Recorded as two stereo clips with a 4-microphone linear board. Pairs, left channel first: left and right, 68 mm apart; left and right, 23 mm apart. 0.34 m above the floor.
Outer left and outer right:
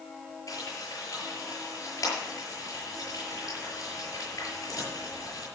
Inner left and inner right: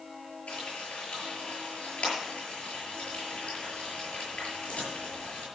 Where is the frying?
60° left (ahead or behind), 7 m.